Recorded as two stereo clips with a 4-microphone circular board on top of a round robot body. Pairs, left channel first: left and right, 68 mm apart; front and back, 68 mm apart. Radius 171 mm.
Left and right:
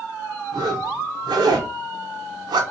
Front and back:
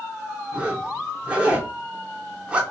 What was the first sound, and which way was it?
A zipper, 105° right.